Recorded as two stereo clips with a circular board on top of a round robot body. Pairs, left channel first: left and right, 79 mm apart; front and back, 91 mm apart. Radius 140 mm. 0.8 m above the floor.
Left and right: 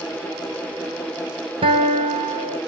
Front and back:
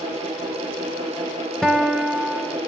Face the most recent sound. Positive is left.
turn(degrees=-85)